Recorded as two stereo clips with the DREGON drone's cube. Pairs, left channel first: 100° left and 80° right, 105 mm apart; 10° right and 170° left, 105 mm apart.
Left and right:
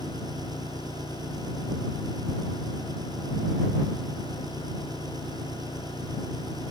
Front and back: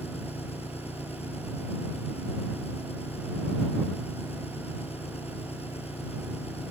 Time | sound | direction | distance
0.0 | an engine running | 25° right | ?